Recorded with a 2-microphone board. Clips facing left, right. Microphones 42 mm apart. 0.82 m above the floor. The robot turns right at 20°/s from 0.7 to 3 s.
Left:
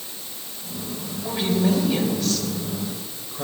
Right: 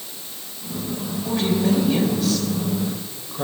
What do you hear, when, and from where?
1.2 s a woman speaking: 160° left, 3 m; by 3.5 s 165° right, 3 m